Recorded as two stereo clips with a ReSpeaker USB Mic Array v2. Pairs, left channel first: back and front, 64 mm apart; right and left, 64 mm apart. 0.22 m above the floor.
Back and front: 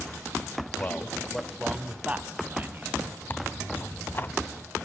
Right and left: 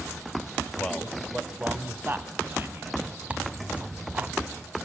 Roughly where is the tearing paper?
Behind left.